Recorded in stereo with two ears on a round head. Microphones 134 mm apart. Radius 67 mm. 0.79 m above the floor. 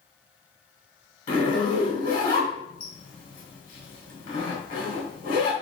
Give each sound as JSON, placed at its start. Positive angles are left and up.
{"t": 1.3, "sound": "a zipper", "side_deg": 60, "distance_m": 2.0}